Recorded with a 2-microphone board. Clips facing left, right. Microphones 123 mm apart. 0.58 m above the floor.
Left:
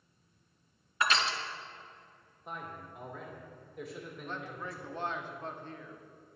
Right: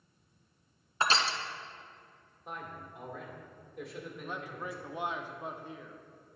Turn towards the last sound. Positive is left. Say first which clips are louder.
# right 1 dB
turn(degrees=-15)  # may be behind; listen again after turning